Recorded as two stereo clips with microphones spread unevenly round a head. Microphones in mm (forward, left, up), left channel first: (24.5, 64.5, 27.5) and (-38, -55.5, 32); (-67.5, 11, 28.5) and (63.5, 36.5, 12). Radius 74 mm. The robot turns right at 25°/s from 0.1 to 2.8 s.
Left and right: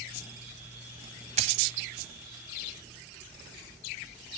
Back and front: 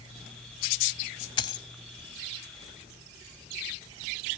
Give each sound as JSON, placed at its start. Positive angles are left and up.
{"t": 1.4, "sound": "a dropped coin", "azimuth_deg": -135}